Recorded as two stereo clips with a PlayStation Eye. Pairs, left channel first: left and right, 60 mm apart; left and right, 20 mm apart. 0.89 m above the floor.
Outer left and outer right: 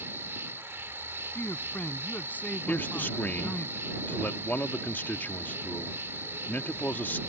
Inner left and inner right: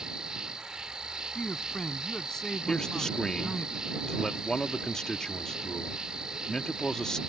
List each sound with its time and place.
0.0 s an insect: 40° right (ahead or behind)
1.4 s a man speaking: 30° left (ahead or behind)
2.7 s a man speaking: 30° left (ahead or behind)